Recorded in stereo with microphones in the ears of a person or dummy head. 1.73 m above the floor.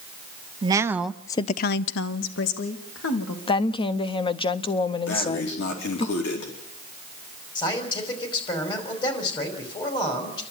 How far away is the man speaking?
About 5 m.